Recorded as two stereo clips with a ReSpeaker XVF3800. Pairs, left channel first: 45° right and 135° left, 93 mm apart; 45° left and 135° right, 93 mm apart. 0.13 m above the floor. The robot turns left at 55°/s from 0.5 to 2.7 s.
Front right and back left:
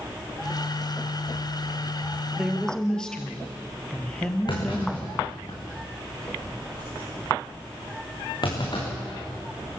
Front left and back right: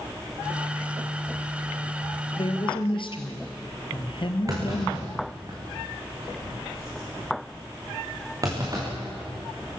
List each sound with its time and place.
2.4 s a woman speaking: 55° left, 3 m; by 5.5 s 35° left, 3 m
4.5 s a clunk: 85° right, 7 m